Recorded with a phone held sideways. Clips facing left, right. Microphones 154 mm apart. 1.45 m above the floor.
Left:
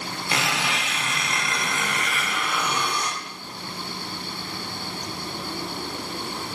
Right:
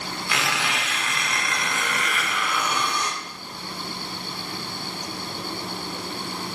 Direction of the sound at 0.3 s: 30° left (ahead or behind).